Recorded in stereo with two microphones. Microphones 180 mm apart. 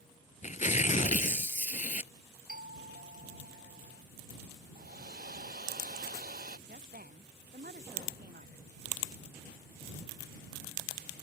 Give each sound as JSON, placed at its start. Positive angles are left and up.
{"t": 0.4, "sound": "tearing paper", "side_deg": 45}
{"t": 2.5, "sound": "a doorbell", "side_deg": -60}
{"t": 4.8, "sound": "a hair dryer", "side_deg": -60}
{"t": 6.7, "sound": "a woman speaking", "side_deg": -55}